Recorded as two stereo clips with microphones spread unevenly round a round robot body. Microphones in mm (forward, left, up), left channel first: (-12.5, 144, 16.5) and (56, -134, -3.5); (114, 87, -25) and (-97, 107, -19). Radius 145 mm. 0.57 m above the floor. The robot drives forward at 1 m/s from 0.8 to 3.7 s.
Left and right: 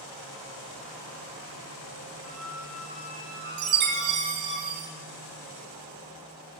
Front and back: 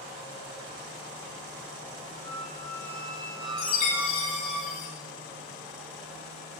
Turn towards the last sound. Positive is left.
turn(degrees=-50)